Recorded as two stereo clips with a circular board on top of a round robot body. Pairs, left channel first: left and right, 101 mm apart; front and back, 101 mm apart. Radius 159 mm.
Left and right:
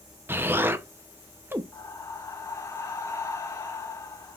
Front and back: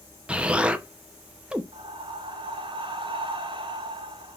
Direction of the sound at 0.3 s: 115° right.